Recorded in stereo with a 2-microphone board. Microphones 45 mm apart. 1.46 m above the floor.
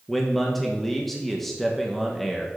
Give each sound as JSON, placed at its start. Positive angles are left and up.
{"t": 0.1, "sound": "a man speaking", "side_deg": 5, "distance_m": 1.1}